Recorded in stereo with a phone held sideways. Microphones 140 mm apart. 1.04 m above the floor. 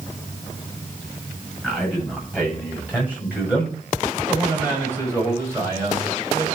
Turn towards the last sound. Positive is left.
turn(degrees=-25)  # may be behind; listen again after turning